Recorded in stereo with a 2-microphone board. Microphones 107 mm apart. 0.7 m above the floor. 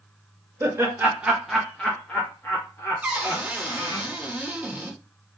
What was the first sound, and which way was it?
Laughter, 25° right (ahead or behind).